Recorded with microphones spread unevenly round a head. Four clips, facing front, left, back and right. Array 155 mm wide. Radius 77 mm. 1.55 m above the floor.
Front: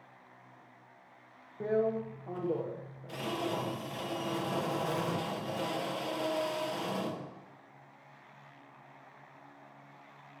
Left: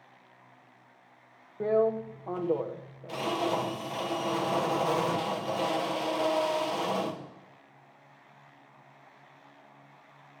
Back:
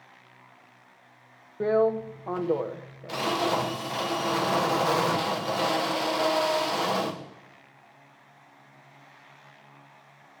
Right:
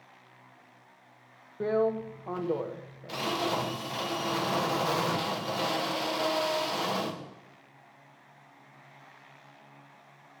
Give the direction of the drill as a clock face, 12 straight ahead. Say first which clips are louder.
Left 1 dB, back 7 dB; 7 o'clock.